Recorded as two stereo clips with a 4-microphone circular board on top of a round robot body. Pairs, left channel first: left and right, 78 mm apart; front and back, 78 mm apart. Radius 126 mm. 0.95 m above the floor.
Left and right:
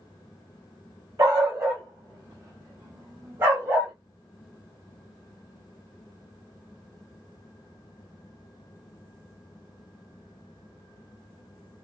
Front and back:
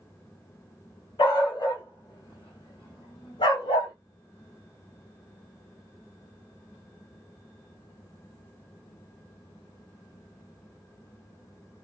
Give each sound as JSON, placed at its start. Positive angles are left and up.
{"t": 1.2, "sound": "a dog barking", "azimuth_deg": -35, "distance_m": 1.9}